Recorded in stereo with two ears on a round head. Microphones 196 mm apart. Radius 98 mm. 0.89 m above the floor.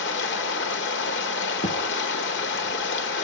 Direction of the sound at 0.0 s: 55° left (ahead or behind).